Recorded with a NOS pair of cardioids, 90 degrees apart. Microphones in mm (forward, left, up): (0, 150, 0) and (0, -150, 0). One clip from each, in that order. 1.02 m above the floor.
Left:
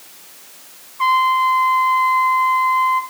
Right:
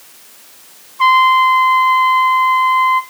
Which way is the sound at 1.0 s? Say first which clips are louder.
Right 5 dB; 25° right.